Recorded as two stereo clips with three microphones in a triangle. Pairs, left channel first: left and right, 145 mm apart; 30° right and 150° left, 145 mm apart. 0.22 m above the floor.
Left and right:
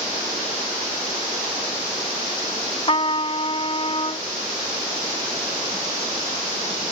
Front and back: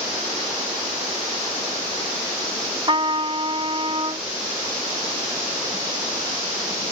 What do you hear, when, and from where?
2.9 s a trumpet: 115° left